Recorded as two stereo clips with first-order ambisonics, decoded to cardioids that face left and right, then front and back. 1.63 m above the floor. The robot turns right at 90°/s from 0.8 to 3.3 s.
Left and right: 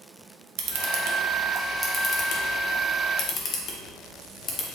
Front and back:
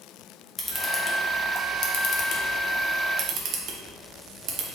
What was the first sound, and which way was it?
A camera shutter, 90° right.